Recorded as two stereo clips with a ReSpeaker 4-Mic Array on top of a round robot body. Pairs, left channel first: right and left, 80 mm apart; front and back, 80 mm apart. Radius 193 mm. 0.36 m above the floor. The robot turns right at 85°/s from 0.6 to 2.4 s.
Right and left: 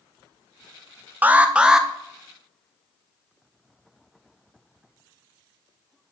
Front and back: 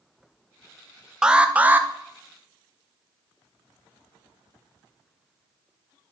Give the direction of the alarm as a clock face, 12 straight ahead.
8 o'clock.